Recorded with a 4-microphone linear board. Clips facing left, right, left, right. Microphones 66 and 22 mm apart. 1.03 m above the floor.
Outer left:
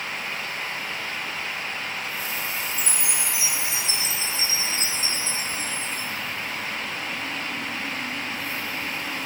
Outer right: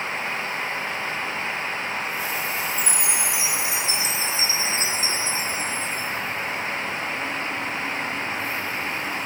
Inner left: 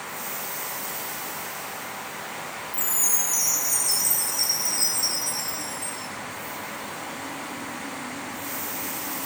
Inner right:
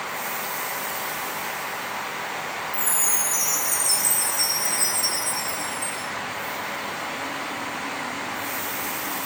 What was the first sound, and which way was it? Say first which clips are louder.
A chime: outer right 3 dB, even; 50° left (ahead or behind).